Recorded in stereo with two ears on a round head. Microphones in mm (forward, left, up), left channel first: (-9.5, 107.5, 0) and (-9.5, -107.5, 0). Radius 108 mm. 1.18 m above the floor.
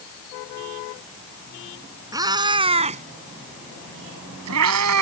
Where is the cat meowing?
15° right (ahead or behind); by 5.0 s 75° right (ahead or behind).